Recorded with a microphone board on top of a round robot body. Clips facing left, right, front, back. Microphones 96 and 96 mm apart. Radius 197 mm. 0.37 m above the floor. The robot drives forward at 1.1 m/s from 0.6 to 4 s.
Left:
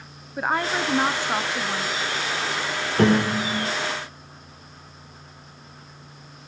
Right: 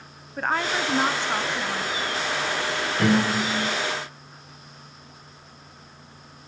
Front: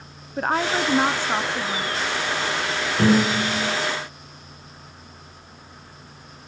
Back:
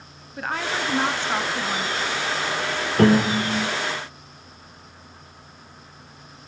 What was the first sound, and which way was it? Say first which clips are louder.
A woman speaking: left 1 dB, front 5 dB; 15° left.